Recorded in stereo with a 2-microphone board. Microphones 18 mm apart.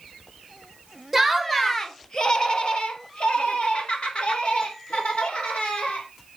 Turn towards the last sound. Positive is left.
turn(degrees=85)